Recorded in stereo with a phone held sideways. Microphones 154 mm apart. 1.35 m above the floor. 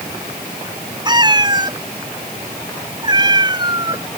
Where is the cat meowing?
30° right (ahead or behind).